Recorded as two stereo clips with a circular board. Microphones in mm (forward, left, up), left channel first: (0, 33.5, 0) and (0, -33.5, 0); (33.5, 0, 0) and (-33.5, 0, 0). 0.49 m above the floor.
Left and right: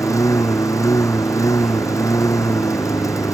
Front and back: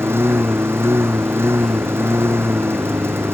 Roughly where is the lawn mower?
Behind left.